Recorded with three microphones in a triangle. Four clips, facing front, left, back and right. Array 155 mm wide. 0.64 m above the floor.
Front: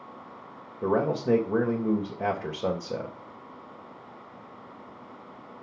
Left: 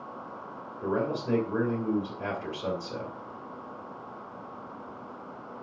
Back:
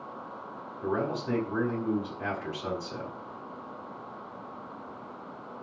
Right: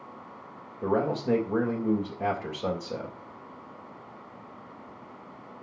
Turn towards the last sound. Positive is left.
turn(degrees=-20)